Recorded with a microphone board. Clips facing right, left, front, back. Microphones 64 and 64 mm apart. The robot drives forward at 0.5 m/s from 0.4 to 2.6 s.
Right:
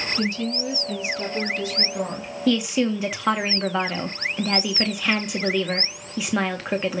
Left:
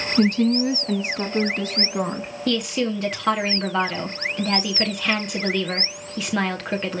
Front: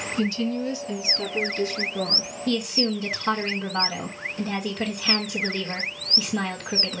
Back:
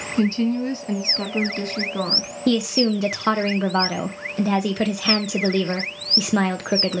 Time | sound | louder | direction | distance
0.2 | a woman speaking | left 11 dB, back 5 dB | 125° left | 2 m
2.5 | a woman speaking | right 2 dB, back 6 dB | 175° right | 1.5 m